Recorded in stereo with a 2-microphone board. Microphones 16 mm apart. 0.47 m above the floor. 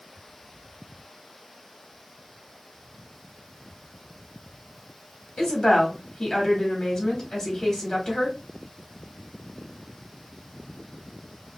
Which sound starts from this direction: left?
A woman speaking, at 5.4 s.